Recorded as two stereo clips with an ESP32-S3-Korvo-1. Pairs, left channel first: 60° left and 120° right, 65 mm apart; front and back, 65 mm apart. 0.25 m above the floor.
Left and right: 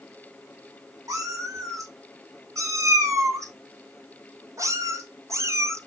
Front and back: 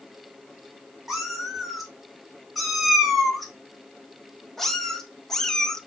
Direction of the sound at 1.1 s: 95° right.